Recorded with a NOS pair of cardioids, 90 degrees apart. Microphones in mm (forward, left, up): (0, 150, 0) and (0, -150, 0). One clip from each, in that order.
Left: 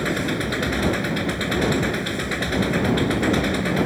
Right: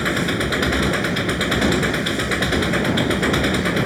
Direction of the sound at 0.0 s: 35° right.